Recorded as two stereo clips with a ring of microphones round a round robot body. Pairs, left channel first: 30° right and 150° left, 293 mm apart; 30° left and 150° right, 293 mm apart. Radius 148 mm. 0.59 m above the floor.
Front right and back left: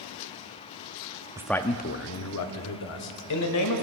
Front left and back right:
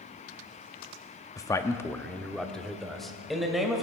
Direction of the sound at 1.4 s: 90° left.